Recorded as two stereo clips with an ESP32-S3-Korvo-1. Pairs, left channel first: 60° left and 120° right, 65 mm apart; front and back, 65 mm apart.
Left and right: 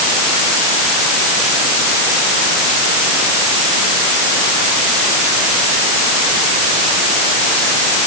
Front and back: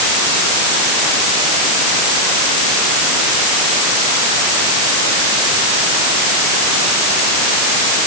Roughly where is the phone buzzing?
No phone buzzing in this recording.